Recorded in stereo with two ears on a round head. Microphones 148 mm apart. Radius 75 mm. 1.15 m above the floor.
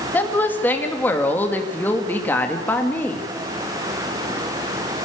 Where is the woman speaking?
10° left (ahead or behind), 2 m.